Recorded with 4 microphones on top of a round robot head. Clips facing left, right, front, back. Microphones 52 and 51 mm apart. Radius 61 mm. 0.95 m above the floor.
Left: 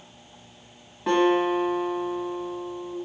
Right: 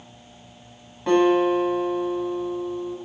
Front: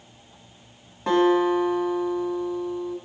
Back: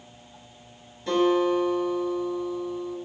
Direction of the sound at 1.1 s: 5° left.